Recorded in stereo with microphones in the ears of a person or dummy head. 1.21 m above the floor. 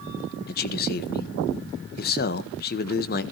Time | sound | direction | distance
0.5 | a man speaking | 50° left (ahead or behind) | 0.8 m